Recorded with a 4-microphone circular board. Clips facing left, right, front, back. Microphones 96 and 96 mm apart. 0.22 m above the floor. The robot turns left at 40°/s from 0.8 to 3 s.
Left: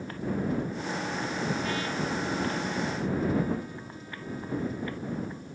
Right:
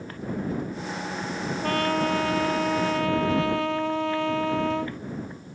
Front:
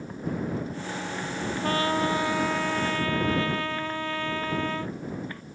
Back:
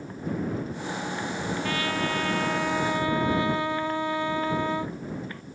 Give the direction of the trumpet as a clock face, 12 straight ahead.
2 o'clock.